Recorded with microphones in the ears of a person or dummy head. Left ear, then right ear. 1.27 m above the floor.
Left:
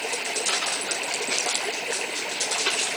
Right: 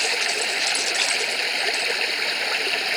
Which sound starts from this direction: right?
Running water, at 0.0 s.